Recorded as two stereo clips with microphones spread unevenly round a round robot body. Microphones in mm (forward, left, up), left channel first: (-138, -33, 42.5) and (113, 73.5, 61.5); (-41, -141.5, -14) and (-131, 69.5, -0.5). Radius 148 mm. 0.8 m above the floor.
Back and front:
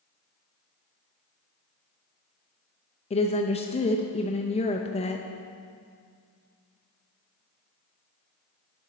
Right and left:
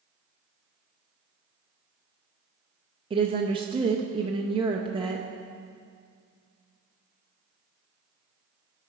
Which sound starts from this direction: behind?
A woman speaking, at 3.1 s.